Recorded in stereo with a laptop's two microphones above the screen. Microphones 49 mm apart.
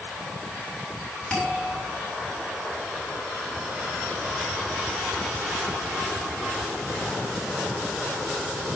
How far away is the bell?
About 5 m.